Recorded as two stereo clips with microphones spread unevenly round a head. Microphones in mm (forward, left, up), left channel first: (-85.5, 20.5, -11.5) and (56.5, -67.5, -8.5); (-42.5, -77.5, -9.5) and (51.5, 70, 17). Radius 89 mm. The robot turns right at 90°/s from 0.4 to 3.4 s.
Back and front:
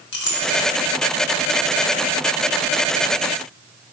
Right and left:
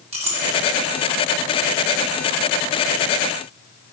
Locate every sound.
0.1 s a clink: 115° left, 1.7 m; by 0.6 s 135° left, 1.7 m